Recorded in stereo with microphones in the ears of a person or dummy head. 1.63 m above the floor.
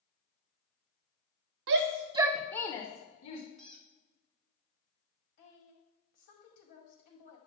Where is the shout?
65° right (ahead or behind), 0.7 m; by 3.4 s 30° left (ahead or behind), 1.5 m.